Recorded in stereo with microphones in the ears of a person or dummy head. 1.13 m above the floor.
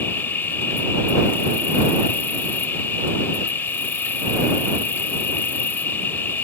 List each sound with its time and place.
0.0 s an insect: 15° left (ahead or behind)